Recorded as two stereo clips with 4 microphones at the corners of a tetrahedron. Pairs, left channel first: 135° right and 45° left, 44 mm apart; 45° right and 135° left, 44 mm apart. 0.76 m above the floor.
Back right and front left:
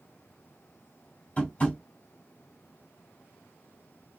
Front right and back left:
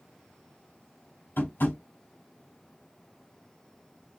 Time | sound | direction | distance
1.4 | tapping | 75° right | 2.5 m